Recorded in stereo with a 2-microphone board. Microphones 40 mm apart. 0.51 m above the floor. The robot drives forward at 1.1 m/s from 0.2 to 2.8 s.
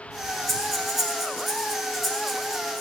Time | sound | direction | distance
0.5 | breathing | 5° left (ahead or behind) | 5 m